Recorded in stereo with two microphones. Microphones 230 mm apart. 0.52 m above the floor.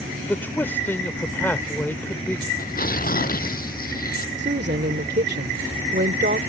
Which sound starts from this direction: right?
A woman speaking, at 4.4 s.